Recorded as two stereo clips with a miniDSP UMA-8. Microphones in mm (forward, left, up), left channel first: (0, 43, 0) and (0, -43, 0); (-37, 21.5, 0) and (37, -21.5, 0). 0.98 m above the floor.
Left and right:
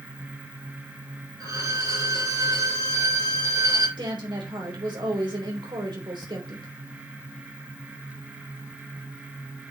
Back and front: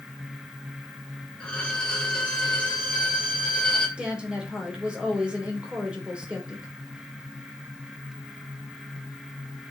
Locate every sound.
1.4 s a violin: 130° right, 3.5 m
4.0 s a woman speaking: 105° right, 3 m